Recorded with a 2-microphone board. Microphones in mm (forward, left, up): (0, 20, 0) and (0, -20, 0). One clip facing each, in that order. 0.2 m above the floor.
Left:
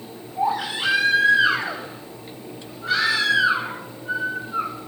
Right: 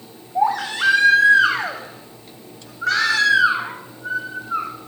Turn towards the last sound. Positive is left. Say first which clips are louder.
# right 4 dB
turn(degrees=-75)  # may be behind; listen again after turning